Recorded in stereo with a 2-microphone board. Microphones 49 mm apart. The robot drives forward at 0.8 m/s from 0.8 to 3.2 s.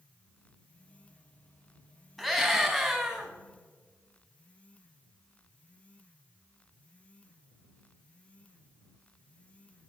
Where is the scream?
5° left (ahead or behind), 3 m.